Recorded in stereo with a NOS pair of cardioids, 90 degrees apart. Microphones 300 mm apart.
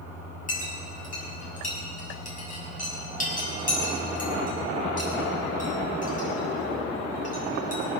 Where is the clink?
25° left, 7 m.